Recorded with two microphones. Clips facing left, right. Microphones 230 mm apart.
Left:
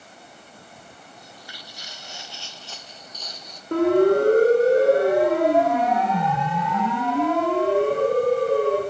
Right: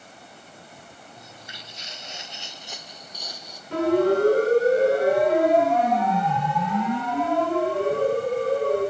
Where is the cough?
I don't hear a cough.